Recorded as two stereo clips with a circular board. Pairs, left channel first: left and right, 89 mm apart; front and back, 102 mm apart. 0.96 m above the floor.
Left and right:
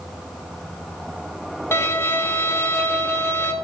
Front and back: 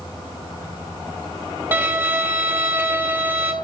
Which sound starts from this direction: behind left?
A violin, at 1.7 s.